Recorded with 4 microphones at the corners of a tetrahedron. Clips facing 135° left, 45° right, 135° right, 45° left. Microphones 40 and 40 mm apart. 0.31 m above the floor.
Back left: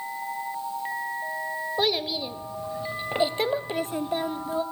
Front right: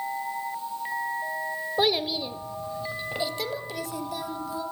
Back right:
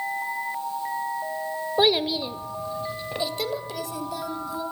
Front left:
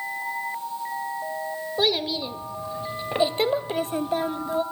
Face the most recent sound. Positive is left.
turn(degrees=85)